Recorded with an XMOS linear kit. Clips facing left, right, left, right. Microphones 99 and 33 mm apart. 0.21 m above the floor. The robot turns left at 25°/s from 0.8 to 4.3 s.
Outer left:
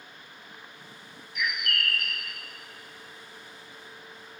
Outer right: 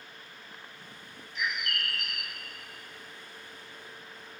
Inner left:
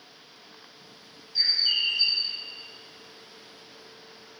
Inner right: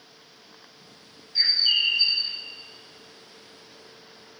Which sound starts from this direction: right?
A bird, at 1.4 s.